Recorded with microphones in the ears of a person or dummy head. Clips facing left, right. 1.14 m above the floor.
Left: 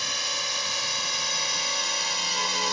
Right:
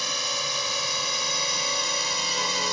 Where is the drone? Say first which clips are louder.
Right 3 dB; 75° right (ahead or behind).